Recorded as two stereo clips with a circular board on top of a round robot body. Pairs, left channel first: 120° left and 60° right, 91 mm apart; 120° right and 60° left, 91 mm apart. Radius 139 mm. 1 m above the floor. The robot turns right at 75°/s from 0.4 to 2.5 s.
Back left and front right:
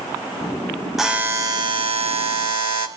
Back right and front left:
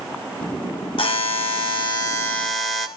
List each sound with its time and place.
1.0 s a buzzer: 150° right, 2.5 m; by 2.9 s 35° right, 2.5 m